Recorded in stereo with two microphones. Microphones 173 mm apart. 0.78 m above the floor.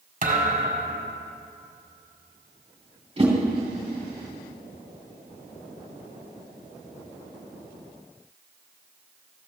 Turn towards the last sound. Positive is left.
turn(degrees=-35)  # may be behind; listen again after turning